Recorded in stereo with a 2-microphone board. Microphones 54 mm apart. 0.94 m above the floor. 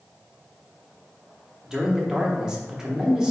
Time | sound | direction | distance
1.6 | a man speaking | 10° right (ahead or behind) | 0.8 m